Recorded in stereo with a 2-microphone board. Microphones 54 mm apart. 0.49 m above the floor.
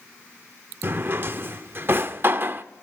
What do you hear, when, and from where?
0.8 s a drawer: 45° right (ahead or behind), 0.5 m